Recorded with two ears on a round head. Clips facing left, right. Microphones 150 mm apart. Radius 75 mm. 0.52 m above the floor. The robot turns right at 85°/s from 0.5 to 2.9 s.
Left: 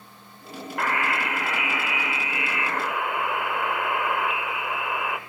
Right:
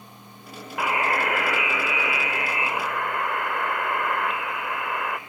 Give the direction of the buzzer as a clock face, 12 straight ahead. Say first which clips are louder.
Right 2 dB; 6 o'clock.